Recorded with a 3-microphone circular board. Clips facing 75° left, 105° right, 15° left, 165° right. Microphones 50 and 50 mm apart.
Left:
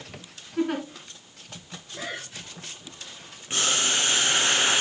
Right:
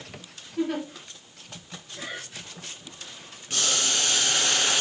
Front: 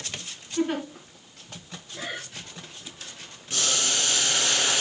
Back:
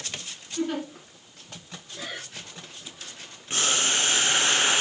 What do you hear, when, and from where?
0.6 s a giggle: 85° left, 3 m
1.9 s breathing: 90° left, 2.5 m
3.5 s boiling: 135° left, 1.0 m